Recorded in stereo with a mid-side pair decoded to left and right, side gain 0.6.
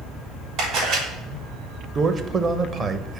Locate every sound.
0.6 s a camera shutter: 70° right, 4 m
1.9 s a man speaking: 35° right, 0.8 m